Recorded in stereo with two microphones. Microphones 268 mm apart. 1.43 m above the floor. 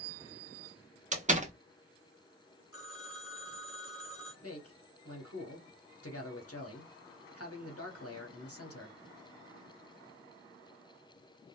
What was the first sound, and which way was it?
A door slam, 25° right (ahead or behind).